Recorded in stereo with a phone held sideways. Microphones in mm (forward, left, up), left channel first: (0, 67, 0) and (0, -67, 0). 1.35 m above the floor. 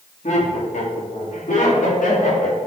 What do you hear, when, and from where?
0.2 s laughter: 60° left (ahead or behind), 2.5 m; by 2.6 s 80° left, 4 m